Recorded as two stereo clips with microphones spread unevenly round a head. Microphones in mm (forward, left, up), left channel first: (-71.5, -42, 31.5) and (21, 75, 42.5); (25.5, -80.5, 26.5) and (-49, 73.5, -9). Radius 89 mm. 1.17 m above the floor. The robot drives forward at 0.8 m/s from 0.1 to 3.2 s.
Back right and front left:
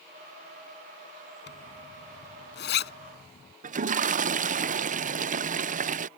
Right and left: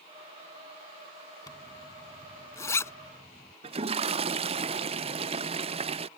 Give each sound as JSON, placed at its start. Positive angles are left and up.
{"t": 1.5, "sound": "a zipper", "azimuth_deg": -130}
{"t": 3.6, "sound": "a toilet flushing", "azimuth_deg": 75}